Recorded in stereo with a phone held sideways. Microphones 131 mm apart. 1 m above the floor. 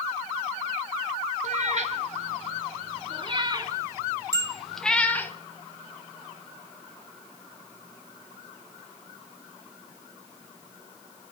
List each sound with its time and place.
1.4 s a cat meowing: 60° right (ahead or behind), 1.7 m; by 5.3 s 15° left (ahead or behind), 1.1 m
4.3 s a bicycle bell: 25° right (ahead or behind), 3.5 m